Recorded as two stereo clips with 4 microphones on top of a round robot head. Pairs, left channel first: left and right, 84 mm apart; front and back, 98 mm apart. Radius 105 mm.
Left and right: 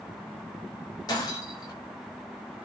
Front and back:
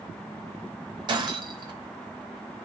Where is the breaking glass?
140° left, 3.5 m.